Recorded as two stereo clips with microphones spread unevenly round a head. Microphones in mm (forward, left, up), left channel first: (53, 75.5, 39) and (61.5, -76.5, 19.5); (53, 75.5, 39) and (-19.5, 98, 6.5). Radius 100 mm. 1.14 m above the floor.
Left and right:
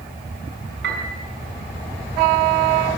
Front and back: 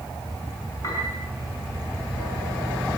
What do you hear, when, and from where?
0.8 s a piano: 90° right, 5 m